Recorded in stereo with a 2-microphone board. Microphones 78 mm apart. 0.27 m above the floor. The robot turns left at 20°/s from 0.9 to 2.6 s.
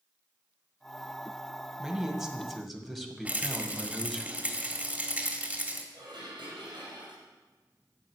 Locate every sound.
1.8 s a man speaking: 10° right (ahead or behind), 1.6 m; by 4.2 s centre (ahead or behind), 1.6 m
3.2 s a rattle: 20° right (ahead or behind), 1.5 m
5.9 s dishes clattering: 70° right (ahead or behind), 5 m